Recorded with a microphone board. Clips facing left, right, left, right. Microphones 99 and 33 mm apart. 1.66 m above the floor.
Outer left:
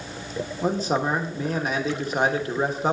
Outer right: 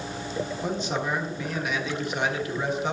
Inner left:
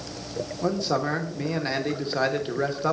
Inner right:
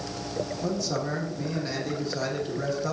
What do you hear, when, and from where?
0.6 s a man speaking: 40° left (ahead or behind), 1.0 m